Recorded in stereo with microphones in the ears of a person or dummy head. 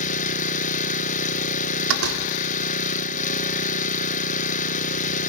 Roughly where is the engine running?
Left.